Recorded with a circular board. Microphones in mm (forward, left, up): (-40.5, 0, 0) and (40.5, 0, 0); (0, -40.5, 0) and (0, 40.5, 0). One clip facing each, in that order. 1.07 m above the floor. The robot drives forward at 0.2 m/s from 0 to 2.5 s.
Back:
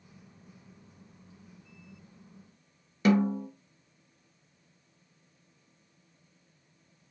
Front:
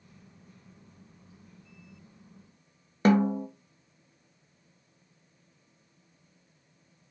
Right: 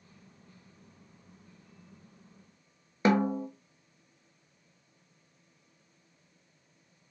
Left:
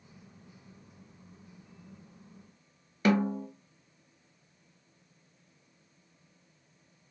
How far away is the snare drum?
About 0.6 m.